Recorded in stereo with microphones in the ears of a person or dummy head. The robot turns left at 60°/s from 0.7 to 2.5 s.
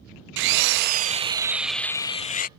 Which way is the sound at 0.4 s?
120° right.